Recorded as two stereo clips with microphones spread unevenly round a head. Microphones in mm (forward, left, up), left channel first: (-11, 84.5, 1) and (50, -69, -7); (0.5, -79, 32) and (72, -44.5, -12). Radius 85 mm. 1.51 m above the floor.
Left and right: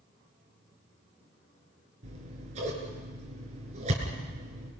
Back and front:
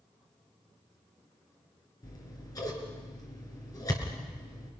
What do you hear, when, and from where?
2.0 s scissors: 125° right, 5 m